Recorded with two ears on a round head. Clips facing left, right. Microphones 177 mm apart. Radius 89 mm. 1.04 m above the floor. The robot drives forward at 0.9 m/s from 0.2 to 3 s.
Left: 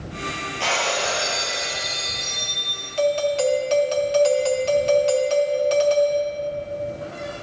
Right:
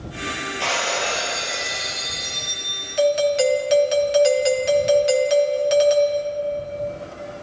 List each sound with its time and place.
0.6 s breaking glass: centre (ahead or behind), 3 m
3.0 s a doorbell: 15° right (ahead or behind), 0.6 m